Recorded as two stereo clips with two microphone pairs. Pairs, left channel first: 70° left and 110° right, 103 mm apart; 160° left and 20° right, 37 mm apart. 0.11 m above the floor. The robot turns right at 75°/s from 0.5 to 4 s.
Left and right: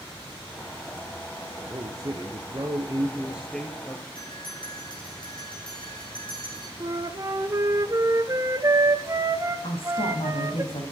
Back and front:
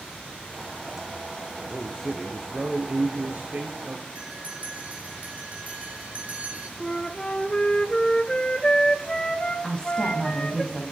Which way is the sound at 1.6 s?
165° right.